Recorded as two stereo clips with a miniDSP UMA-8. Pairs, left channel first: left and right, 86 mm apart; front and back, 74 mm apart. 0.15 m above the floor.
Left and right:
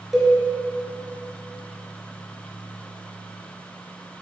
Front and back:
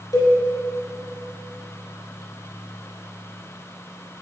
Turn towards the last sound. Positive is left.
turn(degrees=-5)